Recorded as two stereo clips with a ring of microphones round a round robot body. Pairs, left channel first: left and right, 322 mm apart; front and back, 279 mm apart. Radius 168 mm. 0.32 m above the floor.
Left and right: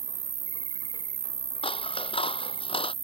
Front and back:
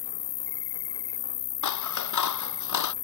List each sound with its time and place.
0.0 s an insect: 20° right
1.6 s scissors: 15° left